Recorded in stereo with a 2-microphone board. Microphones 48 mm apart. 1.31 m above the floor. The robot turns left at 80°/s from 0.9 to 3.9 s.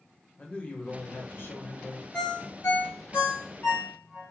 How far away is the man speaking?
About 0.8 m.